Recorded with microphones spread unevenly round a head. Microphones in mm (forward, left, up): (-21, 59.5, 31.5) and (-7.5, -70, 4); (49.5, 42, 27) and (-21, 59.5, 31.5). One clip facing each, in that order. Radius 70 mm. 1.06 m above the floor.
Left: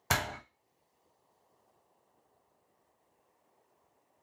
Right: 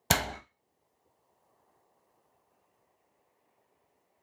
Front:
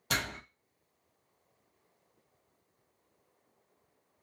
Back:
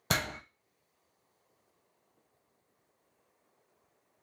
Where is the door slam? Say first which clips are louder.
Right 3 dB, back 2 dB; 140° right, 0.6 m.